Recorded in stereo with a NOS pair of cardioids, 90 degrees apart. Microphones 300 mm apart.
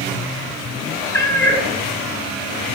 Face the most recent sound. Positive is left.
turn(degrees=5)